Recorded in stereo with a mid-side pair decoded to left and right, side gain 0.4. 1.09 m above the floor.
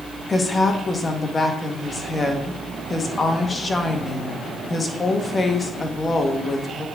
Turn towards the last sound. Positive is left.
turn(degrees=40)